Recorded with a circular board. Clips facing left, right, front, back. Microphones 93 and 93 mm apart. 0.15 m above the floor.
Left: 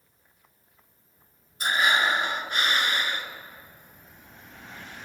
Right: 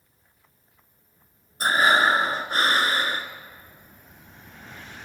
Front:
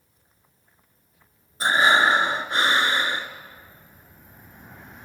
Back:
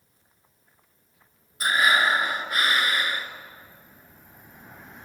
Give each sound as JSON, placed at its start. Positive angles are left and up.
{"t": 1.6, "sound": "breathing", "azimuth_deg": -50, "distance_m": 1.5}